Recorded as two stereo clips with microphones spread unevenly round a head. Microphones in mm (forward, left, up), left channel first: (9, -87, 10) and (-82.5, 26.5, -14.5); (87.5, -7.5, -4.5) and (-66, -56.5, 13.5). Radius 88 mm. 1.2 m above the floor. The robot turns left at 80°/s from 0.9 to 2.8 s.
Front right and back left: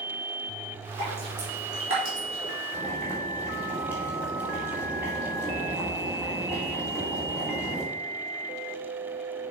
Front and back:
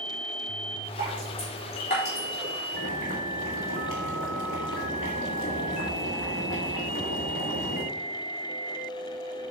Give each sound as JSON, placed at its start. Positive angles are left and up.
{"t": 1.0, "sound": "dripping", "azimuth_deg": 150, "distance_m": 4.0}
{"t": 2.7, "sound": "boiling", "azimuth_deg": 50, "distance_m": 2.0}